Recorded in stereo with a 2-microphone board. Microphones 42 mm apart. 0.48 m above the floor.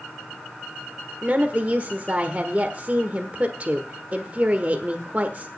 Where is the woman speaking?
35° right (ahead or behind), 1.2 m.